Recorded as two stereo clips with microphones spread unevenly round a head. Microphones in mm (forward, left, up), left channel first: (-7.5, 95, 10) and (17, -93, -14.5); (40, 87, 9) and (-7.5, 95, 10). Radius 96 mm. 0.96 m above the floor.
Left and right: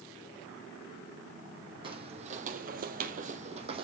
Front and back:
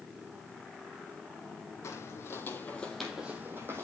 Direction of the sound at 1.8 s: 15° right.